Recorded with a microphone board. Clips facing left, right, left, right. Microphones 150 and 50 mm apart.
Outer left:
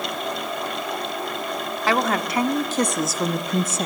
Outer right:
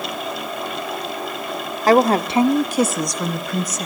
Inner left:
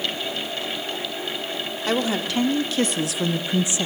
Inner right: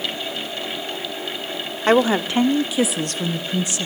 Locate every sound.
1.9 s a woman speaking: 40° right (ahead or behind), 1.1 m; by 3.9 s 30° left (ahead or behind), 1.0 m